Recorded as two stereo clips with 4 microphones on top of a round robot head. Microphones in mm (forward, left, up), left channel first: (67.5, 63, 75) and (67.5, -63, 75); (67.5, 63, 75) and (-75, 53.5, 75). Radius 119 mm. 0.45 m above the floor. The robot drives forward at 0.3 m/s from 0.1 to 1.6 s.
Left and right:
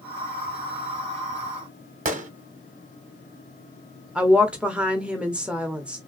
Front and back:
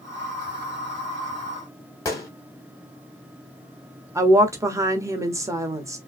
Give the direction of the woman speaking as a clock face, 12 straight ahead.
5 o'clock.